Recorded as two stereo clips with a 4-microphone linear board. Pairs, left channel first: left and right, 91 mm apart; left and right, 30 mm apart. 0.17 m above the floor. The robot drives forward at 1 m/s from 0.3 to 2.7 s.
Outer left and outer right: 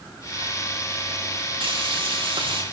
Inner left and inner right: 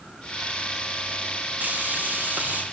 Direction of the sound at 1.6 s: 70° right (ahead or behind).